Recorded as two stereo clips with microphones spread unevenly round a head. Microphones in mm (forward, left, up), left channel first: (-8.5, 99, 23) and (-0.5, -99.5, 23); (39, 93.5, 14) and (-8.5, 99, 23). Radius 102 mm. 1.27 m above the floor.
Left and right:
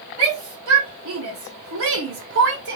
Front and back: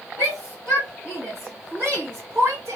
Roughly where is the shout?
Ahead right.